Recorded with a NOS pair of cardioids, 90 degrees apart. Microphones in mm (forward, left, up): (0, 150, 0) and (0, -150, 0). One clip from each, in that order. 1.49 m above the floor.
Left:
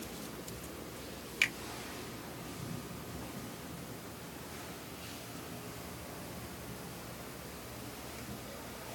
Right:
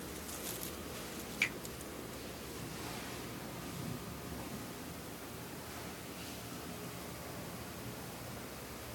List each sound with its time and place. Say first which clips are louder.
1.4 s a finger snap: left 4 dB; 45° left, 1.6 m